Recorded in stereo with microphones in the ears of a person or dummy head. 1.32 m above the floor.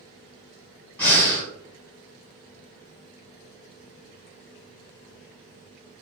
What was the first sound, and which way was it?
Breathing, 5° left (ahead or behind).